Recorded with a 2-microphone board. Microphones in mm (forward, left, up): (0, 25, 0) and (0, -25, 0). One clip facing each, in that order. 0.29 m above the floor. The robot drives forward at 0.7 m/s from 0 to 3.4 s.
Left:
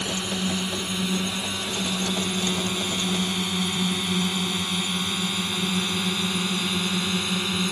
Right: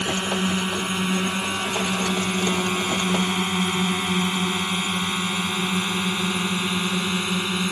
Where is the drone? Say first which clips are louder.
Right 4 dB; 40° right (ahead or behind); by 7.7 s 20° right (ahead or behind).